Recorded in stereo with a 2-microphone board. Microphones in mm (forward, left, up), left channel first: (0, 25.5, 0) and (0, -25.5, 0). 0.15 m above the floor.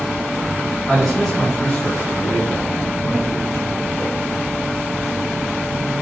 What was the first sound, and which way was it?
A man speaking, 5° right (ahead or behind).